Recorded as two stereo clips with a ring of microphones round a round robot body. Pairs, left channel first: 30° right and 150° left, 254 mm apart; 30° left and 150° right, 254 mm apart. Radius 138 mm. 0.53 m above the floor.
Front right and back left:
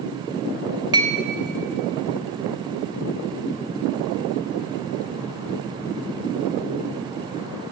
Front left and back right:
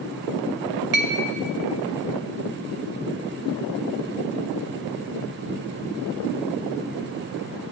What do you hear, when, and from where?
0.9 s a clink: 145° right, 0.7 m